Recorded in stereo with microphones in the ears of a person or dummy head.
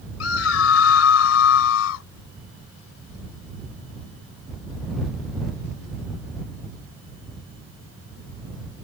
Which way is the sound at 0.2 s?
85° left.